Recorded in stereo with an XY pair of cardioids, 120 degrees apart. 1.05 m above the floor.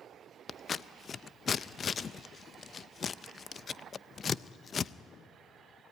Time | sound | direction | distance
0.5 | scissors | 35° left | 0.5 m